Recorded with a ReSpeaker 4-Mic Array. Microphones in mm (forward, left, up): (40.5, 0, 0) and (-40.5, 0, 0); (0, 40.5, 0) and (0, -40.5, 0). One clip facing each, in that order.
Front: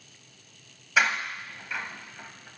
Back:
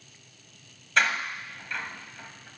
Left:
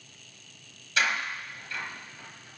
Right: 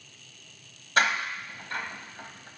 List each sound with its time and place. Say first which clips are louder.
1.0 s a door slam: front 1 dB, right 3 dB; 80° right, 1.0 m